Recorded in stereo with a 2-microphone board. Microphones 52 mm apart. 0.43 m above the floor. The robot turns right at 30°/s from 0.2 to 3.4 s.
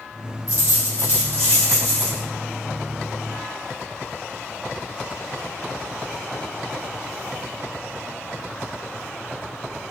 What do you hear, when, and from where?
0.5 s a dropped coin: 105° left, 1.8 m; by 2.2 s 155° left, 1.8 m